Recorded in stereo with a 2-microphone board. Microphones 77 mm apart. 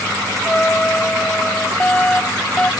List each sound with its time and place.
0.4 s a trumpet: 15° left (ahead or behind)
1.8 s a fire alarm: 15° left (ahead or behind)